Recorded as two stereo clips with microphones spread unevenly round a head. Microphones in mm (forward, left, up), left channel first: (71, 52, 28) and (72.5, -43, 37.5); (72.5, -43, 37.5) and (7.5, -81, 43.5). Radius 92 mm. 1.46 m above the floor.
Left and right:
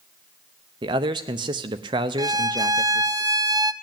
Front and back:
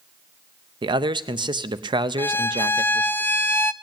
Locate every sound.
0.8 s a man speaking: 140° right, 0.6 m
2.2 s a violin: 35° right, 0.7 m